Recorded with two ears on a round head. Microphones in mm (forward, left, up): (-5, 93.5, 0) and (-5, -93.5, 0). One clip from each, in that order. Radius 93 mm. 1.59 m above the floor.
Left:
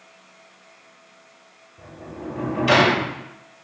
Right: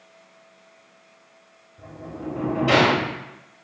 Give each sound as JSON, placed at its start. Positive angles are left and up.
{"t": 1.8, "sound": "a sliding door", "side_deg": 45, "distance_m": 0.8}